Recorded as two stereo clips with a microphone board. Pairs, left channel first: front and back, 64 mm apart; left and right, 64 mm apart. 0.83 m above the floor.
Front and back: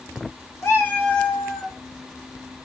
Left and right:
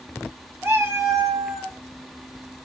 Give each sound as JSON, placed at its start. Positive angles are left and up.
{"t": 0.6, "sound": "a cat meowing", "azimuth_deg": -40, "distance_m": 0.6}